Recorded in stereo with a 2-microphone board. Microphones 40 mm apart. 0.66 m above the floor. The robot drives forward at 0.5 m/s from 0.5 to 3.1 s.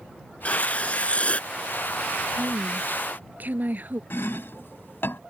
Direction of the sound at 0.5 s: 30° left (ahead or behind).